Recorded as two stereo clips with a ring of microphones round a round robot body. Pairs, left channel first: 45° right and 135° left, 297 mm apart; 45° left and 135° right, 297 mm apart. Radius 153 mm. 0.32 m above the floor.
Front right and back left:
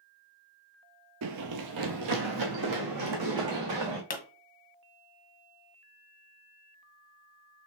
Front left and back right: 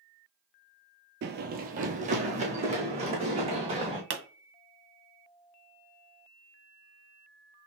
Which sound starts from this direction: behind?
Running footsteps, at 1.2 s.